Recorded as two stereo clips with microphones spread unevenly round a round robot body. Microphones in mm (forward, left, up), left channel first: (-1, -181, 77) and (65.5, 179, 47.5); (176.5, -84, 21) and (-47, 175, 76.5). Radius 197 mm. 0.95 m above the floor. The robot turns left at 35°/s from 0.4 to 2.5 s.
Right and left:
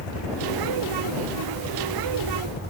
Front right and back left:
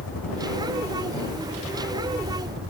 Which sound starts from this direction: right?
A helicopter, at 0.0 s.